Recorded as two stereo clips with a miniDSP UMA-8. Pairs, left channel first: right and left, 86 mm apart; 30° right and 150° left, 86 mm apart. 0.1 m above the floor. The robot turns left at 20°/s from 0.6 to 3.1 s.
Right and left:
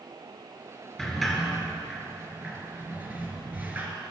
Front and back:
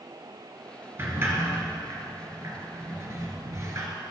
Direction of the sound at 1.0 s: 175° right.